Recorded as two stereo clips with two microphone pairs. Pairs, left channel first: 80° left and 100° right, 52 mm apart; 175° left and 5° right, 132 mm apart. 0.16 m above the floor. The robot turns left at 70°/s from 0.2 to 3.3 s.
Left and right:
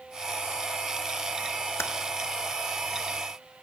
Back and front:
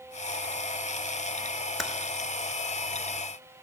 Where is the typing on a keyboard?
80° left, 0.5 m; by 1.9 s 70° left, 0.5 m.